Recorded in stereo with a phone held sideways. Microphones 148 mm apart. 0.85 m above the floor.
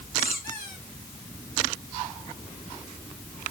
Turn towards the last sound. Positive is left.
turn(degrees=85)